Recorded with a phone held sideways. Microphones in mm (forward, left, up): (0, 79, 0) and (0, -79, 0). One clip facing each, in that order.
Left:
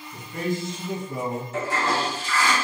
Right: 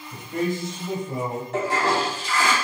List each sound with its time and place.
0.1 s a man speaking: 85° right, 3 m; by 1.4 s 80° right, 4 m
1.5 s a toilet flushing: 65° right (ahead or behind), 3 m